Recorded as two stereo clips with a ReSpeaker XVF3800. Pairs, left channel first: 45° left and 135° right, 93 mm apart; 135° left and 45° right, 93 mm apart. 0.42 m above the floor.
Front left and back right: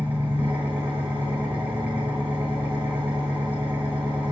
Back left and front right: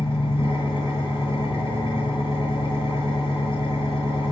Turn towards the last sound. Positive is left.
turn(degrees=160)